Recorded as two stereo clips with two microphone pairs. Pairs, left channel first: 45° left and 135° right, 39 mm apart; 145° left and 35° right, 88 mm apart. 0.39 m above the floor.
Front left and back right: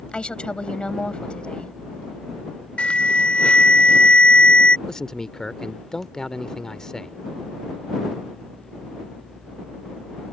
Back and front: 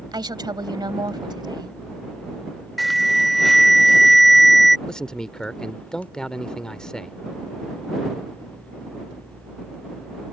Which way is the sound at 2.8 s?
55° left.